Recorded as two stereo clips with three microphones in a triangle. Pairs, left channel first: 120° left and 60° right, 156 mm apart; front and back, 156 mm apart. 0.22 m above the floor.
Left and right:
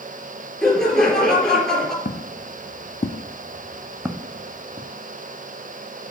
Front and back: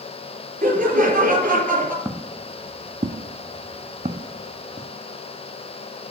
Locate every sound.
0.6 s laughter: 155° right, 3.5 m
2.0 s footsteps: 110° left, 1.0 m; by 4.9 s 120° right, 1.4 m